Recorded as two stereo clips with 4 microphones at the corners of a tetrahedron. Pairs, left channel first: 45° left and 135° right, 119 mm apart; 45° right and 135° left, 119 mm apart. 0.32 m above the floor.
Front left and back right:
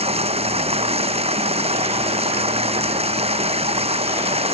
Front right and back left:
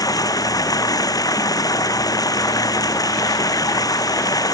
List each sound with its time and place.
0.0 s running water: 105° right